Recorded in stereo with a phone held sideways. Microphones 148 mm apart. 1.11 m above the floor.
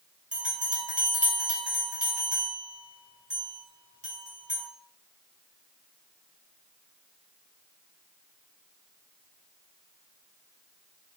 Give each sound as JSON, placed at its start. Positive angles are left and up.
{"t": 0.3, "sound": "a bell", "side_deg": -60, "distance_m": 1.3}